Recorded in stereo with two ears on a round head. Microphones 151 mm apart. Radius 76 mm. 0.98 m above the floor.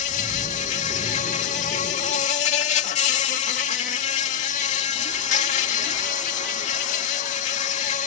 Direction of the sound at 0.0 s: 45° left (ahead or behind).